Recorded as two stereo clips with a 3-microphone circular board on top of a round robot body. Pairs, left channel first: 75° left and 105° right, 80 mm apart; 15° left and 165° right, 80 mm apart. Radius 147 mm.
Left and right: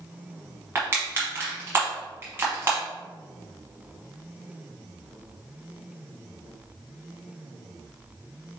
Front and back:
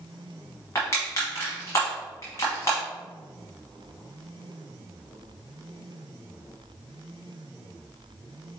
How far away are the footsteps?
I don't hear footsteps.